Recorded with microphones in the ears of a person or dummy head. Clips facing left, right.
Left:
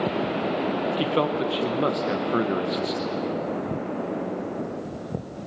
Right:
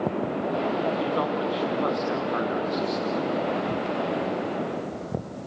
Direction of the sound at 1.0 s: 40° left (ahead or behind).